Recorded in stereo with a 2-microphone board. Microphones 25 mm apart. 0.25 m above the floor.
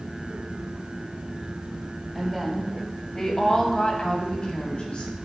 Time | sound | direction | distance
2.1 | a woman speaking | centre (ahead or behind) | 1.5 m